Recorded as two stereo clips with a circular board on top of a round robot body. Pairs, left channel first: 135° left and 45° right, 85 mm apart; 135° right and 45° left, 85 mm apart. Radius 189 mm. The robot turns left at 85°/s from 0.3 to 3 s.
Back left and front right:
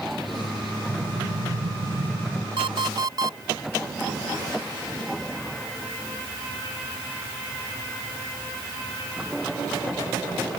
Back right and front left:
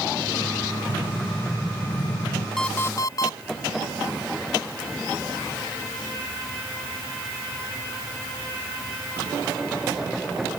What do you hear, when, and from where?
0.9 s an explosion: 10° left; by 2.5 s 125° right
2.6 s an alarm clock: 50° right; by 3.4 s 85° right